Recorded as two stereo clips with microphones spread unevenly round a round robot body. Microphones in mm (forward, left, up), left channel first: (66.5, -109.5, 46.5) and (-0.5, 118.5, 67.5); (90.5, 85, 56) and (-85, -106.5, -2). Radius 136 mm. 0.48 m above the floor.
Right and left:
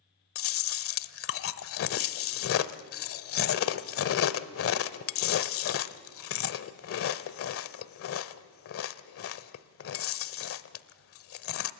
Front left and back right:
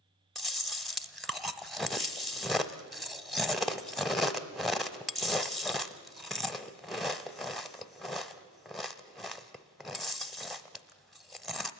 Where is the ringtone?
No ringtone in this recording.